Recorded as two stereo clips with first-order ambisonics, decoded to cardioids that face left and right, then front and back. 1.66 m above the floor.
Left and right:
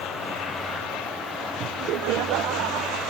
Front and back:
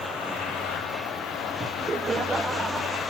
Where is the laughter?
115° right, 0.6 m; by 3.0 s 100° right, 1.5 m.